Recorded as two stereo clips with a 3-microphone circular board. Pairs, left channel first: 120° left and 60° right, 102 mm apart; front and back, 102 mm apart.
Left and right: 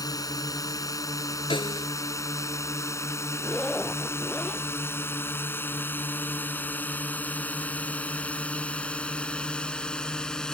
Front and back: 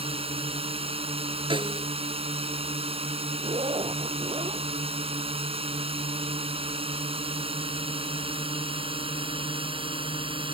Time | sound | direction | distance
0.0 | a drone | 170° left | ?
1.5 | a snare drum | 150° left | ?
3.4 | a zipper | 155° right | ?